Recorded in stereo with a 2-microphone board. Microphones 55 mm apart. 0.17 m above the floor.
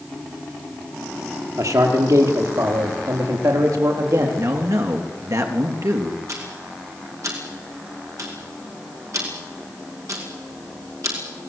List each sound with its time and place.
1.6 s a man speaking: 75° right (ahead or behind), 4.5 m
4.4 s a man speaking: 65° right (ahead or behind), 3.5 m
6.3 s ticking: 65° right (ahead or behind), 5 m